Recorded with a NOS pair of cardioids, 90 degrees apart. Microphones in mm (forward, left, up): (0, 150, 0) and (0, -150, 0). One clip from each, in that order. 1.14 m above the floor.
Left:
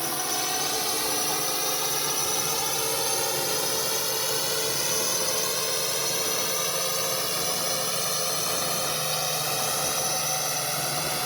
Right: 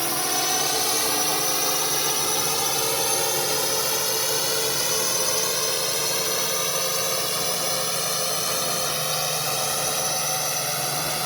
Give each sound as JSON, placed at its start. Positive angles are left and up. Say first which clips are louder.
{"t": 0.0, "sound": "a drone", "louder": "right 4 dB", "azimuth_deg": -30}